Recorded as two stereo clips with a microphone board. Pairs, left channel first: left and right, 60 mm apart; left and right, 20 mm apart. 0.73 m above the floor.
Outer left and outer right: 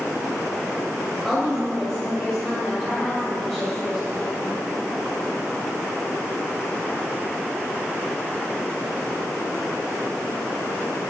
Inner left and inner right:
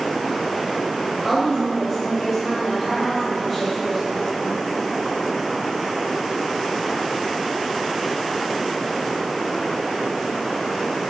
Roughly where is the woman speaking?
Centre.